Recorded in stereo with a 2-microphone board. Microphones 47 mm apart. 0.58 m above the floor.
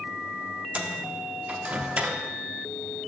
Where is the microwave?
30° right (ahead or behind), 0.7 m.